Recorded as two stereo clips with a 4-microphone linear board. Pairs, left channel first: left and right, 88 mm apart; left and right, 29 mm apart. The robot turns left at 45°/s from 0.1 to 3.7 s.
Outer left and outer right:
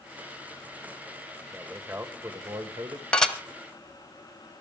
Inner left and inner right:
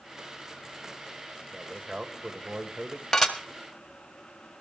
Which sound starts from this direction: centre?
Dishes clattering, at 3.1 s.